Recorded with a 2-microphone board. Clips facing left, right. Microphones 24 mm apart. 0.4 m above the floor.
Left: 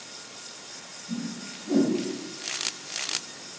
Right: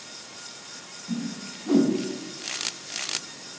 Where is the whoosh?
75° right (ahead or behind), 0.9 m.